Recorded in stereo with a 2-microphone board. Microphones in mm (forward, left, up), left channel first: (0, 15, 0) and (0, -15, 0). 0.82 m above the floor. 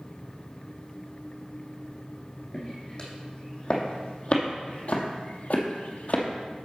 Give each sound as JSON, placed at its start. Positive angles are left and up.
{"t": 2.5, "sound": "footsteps", "side_deg": 30, "distance_m": 2.5}